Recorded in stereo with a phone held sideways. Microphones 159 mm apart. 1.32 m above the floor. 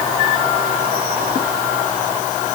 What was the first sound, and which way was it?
Only background noise.